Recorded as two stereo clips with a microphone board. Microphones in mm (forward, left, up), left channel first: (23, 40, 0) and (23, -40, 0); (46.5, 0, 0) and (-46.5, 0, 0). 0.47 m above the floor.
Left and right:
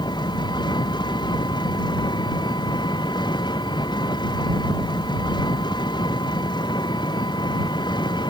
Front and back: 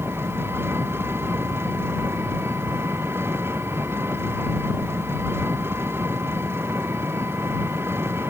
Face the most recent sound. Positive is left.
turn(degrees=115)